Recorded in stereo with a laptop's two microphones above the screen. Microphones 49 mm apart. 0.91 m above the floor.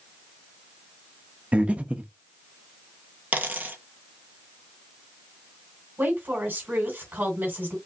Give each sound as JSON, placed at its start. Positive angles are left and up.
{"t": 1.5, "sound": "breathing", "side_deg": -30, "distance_m": 0.7}
{"t": 3.3, "sound": "a dropped coin", "side_deg": -35, "distance_m": 1.1}
{"t": 6.0, "sound": "a woman speaking", "side_deg": -45, "distance_m": 3.0}